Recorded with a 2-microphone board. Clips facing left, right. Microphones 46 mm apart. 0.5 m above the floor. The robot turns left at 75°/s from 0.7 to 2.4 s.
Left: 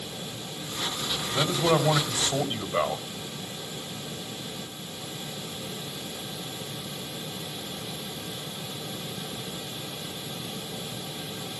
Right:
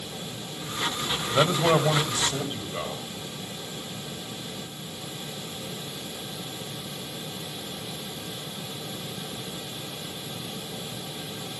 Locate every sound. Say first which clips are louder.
1.3 s a man speaking: right 3 dB; 125° right, 3 m; by 3.0 s 150° left, 3 m